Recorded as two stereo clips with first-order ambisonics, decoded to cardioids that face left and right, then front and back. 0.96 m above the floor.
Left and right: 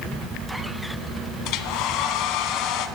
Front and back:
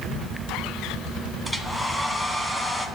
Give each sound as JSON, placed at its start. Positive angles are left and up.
{"t": 1.4, "sound": "a hair dryer", "azimuth_deg": 85, "distance_m": 1.4}